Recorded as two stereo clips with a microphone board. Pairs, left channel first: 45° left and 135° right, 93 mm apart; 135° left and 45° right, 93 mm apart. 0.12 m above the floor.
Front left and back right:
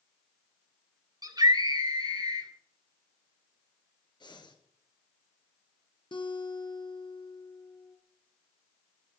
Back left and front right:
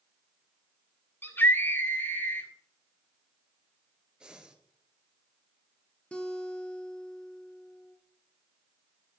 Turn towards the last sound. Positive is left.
turn(degrees=60)